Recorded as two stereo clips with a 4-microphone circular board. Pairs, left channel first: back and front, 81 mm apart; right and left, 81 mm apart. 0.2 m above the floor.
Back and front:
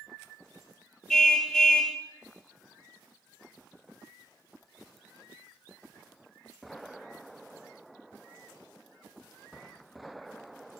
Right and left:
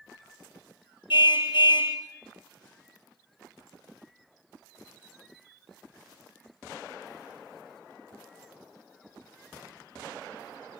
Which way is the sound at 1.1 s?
100° right.